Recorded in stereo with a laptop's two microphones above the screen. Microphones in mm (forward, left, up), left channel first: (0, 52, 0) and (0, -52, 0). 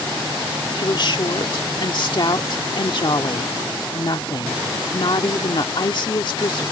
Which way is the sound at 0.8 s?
55° left (ahead or behind).